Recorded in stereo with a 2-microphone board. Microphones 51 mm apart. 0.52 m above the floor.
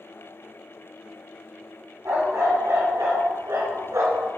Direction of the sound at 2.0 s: 75° right (ahead or behind).